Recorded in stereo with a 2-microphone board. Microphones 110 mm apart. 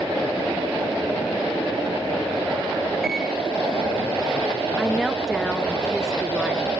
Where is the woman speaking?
Centre (ahead or behind), 2 m.